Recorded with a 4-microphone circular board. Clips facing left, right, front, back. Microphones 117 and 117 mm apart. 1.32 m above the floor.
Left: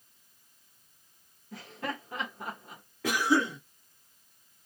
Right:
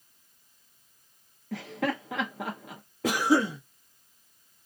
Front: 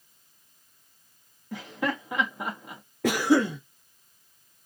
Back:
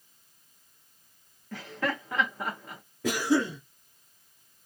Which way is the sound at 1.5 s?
75° right.